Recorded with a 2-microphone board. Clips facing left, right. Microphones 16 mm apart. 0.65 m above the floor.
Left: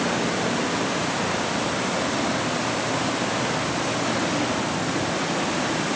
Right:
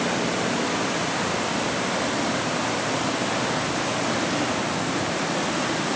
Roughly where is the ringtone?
I don't hear a ringtone.